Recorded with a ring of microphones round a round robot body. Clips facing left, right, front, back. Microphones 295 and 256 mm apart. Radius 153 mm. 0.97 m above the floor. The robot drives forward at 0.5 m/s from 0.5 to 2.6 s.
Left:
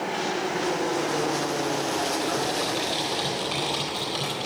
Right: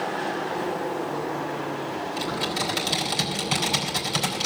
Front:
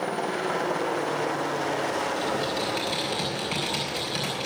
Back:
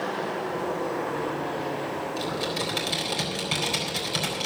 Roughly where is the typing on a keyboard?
Behind right.